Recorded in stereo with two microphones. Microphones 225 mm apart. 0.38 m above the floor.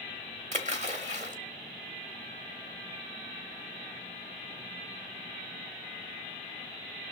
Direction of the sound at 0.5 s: 35° right (ahead or behind).